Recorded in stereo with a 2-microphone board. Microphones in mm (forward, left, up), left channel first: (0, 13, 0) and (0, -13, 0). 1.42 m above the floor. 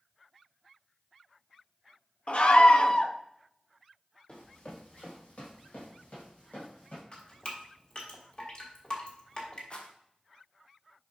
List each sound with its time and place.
2.3 s a scream: 45° left (ahead or behind), 0.8 m
4.3 s running footsteps: 45° left (ahead or behind), 2.5 m; by 7.0 s 60° left (ahead or behind), 3.5 m
7.1 s dripping: 40° left (ahead or behind), 2 m
9.7 s a rattle: 40° left (ahead or behind), 1.1 m